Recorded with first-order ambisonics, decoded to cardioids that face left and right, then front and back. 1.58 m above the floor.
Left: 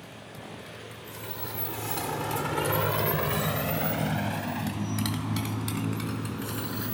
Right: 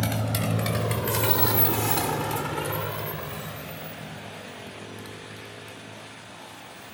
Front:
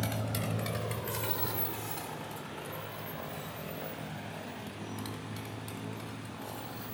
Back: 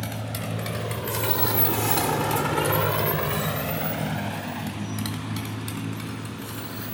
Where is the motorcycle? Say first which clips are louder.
Right 14 dB, back 3 dB; 100° right; by 7.0 s 120° left.